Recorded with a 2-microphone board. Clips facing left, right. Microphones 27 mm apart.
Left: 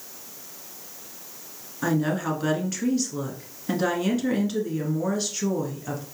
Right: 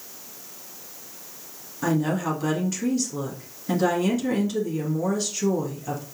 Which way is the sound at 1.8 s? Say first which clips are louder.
Right 1 dB; 10° left (ahead or behind).